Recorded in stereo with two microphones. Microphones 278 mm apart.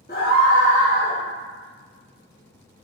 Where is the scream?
35° left (ahead or behind), 0.7 m; by 1.2 s 40° left (ahead or behind), 2.0 m.